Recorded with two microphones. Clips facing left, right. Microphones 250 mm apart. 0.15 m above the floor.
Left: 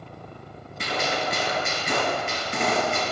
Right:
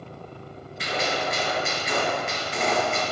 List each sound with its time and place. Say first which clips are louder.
0.8 s a gunshot: even; 50° left (ahead or behind), 1.9 m